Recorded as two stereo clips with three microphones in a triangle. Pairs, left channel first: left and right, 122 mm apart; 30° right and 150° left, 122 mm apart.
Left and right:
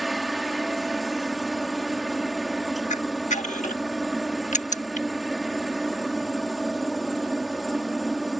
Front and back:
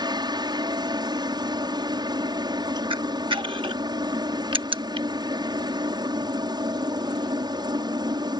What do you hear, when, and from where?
0.0 s a helicopter: straight behind
2.9 s a camera shutter: 105° left